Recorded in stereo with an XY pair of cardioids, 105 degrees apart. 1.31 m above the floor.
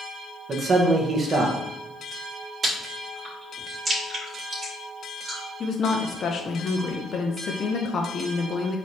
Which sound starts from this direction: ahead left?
A woman speaking, at 5.6 s.